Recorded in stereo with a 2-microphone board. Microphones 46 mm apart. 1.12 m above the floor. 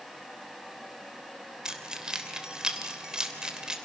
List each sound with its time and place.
1.6 s keys jangling: 15° right (ahead or behind), 2.5 m